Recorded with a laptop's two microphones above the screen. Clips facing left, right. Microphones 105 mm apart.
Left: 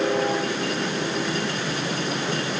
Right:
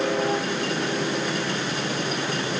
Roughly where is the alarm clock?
No alarm clock in this recording.